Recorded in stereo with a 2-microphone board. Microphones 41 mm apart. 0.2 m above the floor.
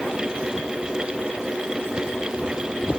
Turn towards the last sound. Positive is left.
No sound to turn to.